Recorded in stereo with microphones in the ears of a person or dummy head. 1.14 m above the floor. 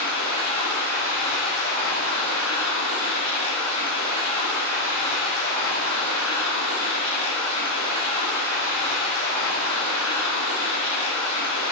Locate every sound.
0.0 s running water: 75° right (ahead or behind), 0.8 m